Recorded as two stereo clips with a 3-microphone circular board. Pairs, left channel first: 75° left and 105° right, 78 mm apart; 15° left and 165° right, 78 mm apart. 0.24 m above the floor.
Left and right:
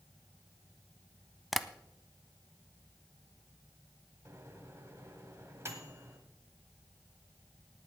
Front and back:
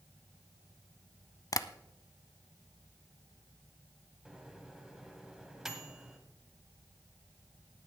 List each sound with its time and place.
1.5 s tapping: 20° right, 0.5 m
4.2 s a microwave: 85° right, 1.5 m